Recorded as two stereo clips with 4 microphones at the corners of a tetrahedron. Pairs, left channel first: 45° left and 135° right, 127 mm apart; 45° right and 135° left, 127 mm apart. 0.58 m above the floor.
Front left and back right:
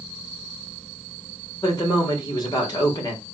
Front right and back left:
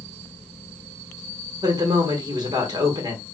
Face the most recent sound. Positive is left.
turn(degrees=90)